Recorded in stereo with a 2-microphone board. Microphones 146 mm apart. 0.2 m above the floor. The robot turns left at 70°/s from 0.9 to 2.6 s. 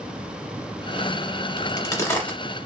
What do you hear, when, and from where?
1.6 s a crack: 30° left (ahead or behind), 1.1 m; by 2.4 s 5° left (ahead or behind), 1.1 m